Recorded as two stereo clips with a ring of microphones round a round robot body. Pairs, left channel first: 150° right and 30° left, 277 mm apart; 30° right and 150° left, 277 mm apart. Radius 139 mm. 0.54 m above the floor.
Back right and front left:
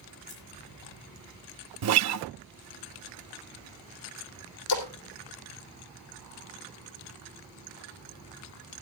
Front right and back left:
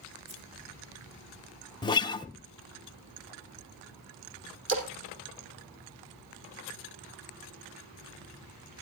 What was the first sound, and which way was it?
Scissors, 155° left.